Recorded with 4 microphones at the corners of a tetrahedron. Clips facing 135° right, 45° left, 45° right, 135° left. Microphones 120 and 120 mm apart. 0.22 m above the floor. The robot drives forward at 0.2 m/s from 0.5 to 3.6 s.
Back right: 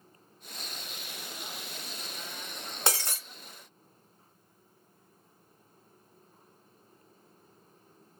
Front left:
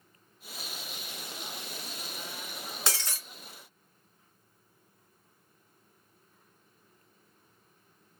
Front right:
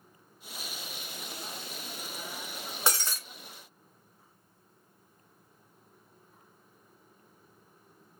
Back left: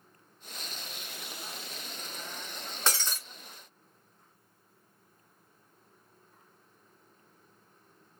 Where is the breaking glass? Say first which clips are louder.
Back right 5 dB, front right 1 dB; 120° right, 0.9 m; by 3.2 s 125° right, 0.9 m.